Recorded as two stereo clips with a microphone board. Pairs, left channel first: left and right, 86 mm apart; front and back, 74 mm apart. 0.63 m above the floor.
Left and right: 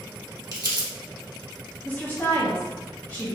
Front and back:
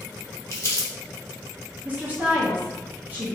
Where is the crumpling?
50° right, 0.8 m.